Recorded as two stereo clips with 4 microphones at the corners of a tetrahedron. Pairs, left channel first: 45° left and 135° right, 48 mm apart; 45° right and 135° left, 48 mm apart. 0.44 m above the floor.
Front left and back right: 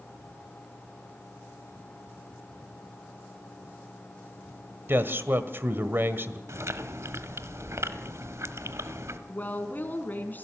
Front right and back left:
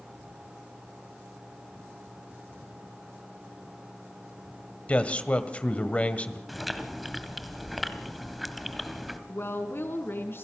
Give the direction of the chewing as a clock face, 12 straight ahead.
4 o'clock.